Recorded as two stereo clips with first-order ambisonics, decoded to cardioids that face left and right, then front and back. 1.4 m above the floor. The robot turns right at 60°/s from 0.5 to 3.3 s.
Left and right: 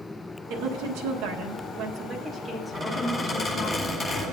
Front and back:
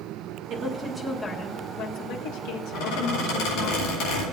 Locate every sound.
0.5 s a woman speaking: 125° right, 1.2 m; by 3.7 s 40° left, 1.2 m
2.7 s a squeak: 25° right, 4 m; by 4.2 s 5° left, 4 m